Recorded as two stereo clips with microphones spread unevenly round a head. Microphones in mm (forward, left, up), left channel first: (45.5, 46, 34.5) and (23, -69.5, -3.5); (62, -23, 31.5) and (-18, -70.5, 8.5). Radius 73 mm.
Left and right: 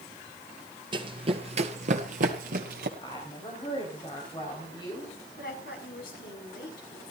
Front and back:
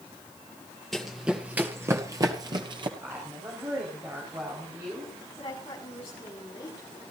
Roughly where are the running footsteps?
Ahead right.